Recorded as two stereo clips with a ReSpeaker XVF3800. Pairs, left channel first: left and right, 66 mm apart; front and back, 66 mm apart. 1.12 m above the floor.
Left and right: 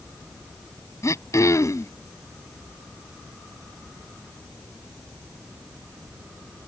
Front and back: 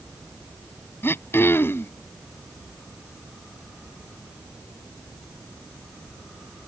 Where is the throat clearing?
55° left.